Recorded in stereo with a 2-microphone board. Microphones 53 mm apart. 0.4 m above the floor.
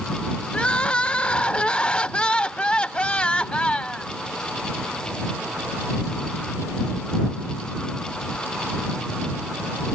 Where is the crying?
20° left (ahead or behind).